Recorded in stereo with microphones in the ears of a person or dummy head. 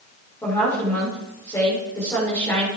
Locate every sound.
0.4 s a woman speaking: 15° left (ahead or behind), 3 m